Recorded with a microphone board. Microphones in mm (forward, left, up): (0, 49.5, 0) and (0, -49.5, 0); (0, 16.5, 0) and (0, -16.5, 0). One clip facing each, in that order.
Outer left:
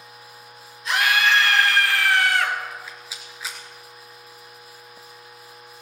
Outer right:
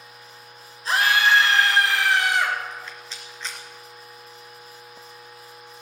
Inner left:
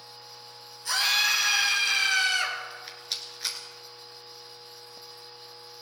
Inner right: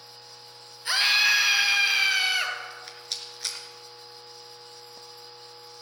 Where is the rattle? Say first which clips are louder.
Even, inner left 1 dB; 5° left (ahead or behind), 2.5 m.